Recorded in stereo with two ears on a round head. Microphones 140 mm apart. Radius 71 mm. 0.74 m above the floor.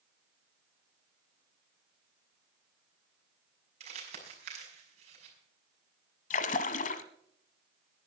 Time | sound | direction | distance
3.8 | crumpling | 45° right (ahead or behind) | 6 m
6.3 | a splash | 55° left (ahead or behind) | 1.1 m